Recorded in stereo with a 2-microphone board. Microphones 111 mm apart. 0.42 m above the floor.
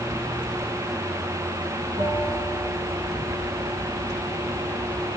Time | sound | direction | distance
2.0 | a bell | 75° right (ahead or behind) | 6 m